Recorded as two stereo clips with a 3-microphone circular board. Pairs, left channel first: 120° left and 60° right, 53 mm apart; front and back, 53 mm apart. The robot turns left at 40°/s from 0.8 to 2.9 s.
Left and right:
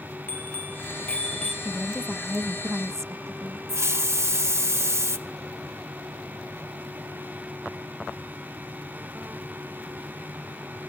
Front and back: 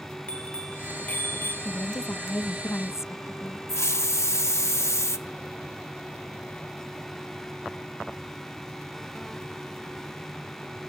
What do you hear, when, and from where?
0.3 s a bicycle bell: 65° left, 3 m; by 1.6 s 35° left, 3 m
1.6 s a woman speaking: 20° left, 0.5 m; by 3.6 s 30° right, 0.5 m
3.7 s a hiss: 30° right, 0.8 m